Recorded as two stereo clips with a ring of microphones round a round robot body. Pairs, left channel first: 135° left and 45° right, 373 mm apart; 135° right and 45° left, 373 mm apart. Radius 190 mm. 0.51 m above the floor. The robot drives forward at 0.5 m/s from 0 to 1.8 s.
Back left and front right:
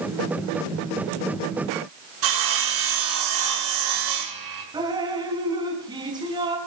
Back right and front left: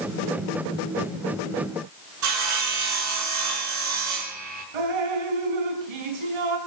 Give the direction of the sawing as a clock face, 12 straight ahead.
12 o'clock.